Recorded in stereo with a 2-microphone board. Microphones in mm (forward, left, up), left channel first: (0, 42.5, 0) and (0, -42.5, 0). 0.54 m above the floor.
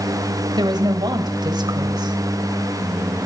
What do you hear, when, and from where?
0.6 s a woman speaking: 60° right (ahead or behind), 3.5 m